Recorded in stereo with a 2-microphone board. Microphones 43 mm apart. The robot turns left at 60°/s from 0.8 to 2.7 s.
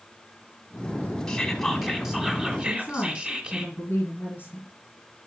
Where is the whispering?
15° left (ahead or behind), 1.4 m; by 3.6 s 25° right (ahead or behind), 1.4 m.